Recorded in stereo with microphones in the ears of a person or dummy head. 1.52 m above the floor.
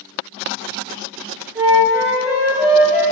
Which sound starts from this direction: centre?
A flute, at 1.6 s.